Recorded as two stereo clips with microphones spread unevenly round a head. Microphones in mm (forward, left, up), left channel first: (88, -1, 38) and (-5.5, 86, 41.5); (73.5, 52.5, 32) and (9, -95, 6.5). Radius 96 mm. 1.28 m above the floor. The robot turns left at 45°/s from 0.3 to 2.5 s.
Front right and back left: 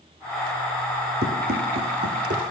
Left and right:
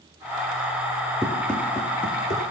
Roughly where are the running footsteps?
Behind.